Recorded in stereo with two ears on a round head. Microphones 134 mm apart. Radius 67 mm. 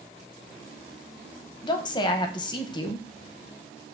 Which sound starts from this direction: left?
A woman speaking, at 1.6 s.